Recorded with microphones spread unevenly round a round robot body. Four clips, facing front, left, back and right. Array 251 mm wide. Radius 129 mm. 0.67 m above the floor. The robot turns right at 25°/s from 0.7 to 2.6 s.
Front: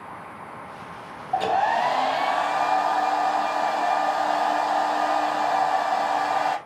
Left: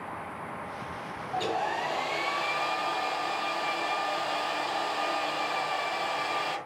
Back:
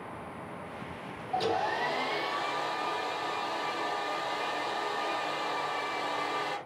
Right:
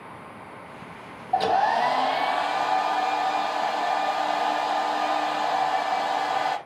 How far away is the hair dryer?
About 1.2 m.